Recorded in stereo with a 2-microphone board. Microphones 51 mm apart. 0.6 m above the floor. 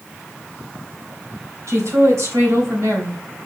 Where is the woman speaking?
75° right (ahead or behind), 3.5 m.